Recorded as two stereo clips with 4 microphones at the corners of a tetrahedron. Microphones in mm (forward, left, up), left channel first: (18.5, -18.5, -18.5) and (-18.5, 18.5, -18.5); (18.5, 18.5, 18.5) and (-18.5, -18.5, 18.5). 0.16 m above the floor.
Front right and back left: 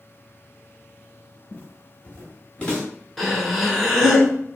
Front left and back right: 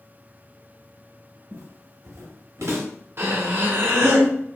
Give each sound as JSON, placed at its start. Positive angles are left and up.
{"t": 1.5, "sound": "footsteps", "azimuth_deg": -115, "distance_m": 1.0}
{"t": 3.2, "sound": "breathing", "azimuth_deg": -135, "distance_m": 0.9}